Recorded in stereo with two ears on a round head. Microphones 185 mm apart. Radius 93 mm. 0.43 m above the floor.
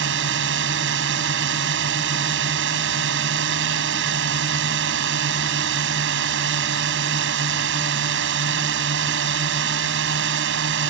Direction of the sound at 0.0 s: 65° right (ahead or behind).